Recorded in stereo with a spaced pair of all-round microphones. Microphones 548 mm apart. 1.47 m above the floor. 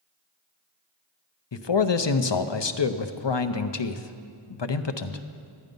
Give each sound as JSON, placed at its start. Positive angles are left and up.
{"t": 1.5, "sound": "a man speaking", "side_deg": 55, "distance_m": 0.6}